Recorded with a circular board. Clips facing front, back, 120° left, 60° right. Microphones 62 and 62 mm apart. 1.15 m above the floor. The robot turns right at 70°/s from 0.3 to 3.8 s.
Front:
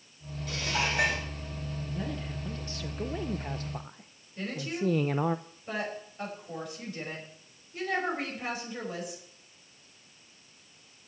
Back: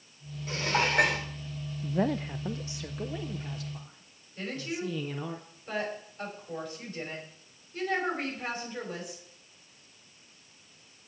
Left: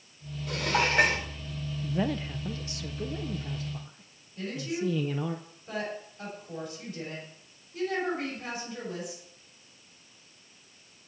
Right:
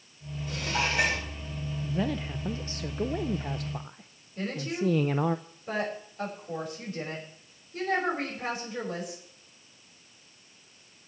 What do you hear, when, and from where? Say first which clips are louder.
0.5 s dishes clattering: back 3 dB, left 3 dB; 120° left, 2.5 m; by 1.3 s 175° left, 2.5 m
1.8 s a man speaking: back 10 dB, left 1 dB; 170° right, 0.6 m; by 5.4 s 35° right, 0.6 m
4.4 s a woman speaking: front 1 dB, right 1 dB; 80° right, 6 m